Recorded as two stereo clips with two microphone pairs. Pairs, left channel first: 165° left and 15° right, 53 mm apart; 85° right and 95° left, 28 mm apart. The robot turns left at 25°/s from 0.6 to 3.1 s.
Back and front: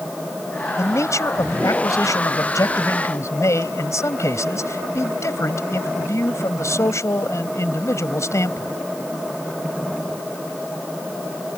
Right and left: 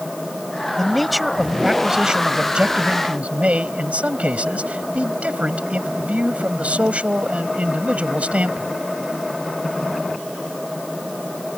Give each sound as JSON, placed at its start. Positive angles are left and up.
{"t": 0.8, "sound": "a man speaking", "azimuth_deg": -165}